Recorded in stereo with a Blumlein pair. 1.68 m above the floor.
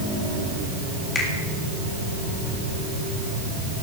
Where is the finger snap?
20° left, 3.5 m.